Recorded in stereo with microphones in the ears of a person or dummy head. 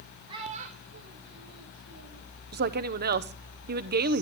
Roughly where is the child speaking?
Right.